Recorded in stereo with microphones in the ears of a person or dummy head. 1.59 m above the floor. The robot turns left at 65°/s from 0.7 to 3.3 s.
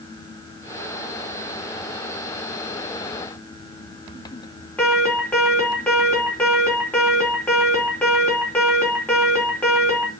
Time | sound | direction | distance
4.8 | an alarm | 10° left (ahead or behind) | 4 m